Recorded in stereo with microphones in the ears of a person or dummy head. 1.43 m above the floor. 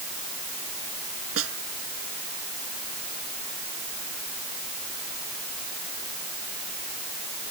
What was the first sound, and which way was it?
A snare drum, 85° right.